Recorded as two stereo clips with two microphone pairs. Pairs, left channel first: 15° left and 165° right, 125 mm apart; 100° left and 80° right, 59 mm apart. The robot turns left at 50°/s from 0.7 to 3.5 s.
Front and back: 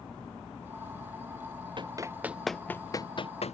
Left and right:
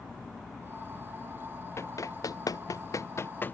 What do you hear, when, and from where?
1.8 s running footsteps: 145° left; by 3.5 s 45° left